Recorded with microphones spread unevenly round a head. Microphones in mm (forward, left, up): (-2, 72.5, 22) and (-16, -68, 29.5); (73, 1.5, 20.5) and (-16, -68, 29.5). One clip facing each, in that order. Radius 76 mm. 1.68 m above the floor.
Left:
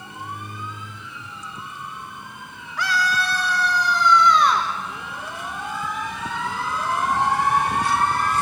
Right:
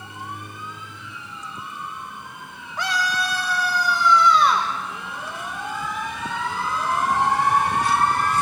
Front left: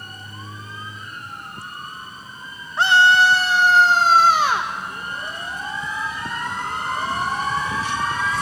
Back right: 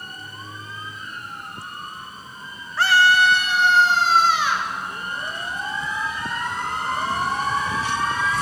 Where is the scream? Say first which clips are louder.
Left 1 dB, front left 2 dB; 30° right, 0.8 m; by 4.7 s 10° right, 1.6 m.